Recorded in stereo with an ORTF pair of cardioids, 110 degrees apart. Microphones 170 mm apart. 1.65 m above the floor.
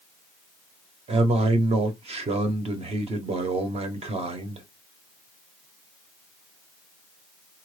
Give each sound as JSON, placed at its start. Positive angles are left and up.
{"t": 1.1, "sound": "a man speaking", "azimuth_deg": -35, "distance_m": 0.9}